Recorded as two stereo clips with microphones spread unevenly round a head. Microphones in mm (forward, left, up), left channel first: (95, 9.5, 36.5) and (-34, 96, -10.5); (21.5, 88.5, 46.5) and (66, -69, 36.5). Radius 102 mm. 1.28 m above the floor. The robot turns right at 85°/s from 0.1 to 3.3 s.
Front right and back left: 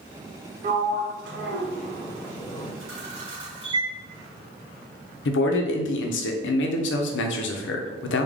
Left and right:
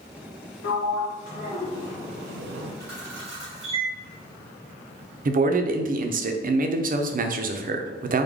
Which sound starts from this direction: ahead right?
A man speaking, at 5.2 s.